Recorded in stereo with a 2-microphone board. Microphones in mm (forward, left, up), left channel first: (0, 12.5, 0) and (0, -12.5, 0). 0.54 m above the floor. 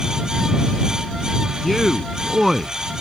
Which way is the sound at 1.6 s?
Centre (ahead or behind).